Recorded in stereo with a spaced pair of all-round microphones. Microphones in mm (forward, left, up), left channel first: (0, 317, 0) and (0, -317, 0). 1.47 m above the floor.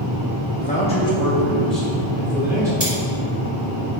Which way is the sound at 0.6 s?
15° left (ahead or behind).